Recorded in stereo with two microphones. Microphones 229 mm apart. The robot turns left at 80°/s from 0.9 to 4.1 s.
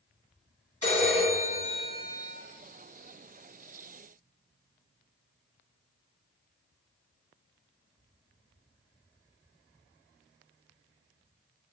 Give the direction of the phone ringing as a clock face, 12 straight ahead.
8 o'clock.